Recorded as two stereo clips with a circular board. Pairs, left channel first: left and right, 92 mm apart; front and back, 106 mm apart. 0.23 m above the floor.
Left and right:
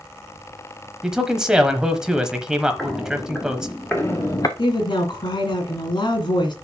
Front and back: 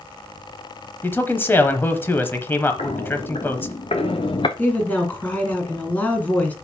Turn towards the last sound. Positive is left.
turn(degrees=70)